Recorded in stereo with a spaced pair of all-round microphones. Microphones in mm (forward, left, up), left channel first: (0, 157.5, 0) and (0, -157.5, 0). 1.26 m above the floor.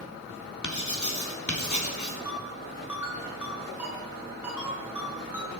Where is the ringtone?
5° right (ahead or behind), 9 m.